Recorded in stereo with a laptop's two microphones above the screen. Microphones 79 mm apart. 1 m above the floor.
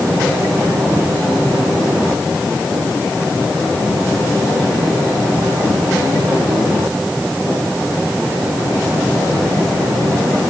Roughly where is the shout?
No shout in this recording.